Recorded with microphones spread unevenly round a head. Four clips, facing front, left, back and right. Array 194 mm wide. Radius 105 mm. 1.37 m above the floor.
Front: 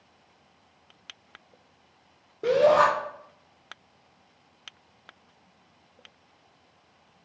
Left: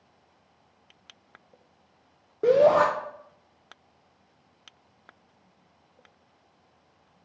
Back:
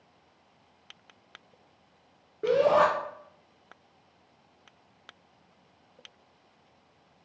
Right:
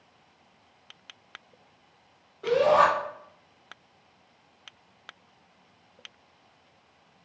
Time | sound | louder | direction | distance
2.4 | a shout | left 2 dB, front 3 dB | 90° left | 0.5 m